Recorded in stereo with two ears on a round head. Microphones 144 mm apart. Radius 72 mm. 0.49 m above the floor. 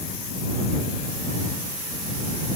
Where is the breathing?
I don't hear breathing.